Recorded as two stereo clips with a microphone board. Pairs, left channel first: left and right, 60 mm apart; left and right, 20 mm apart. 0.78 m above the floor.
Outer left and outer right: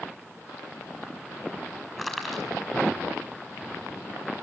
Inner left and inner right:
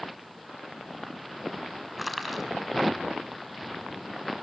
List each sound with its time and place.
2.0 s crushing: 5° left (ahead or behind), 6 m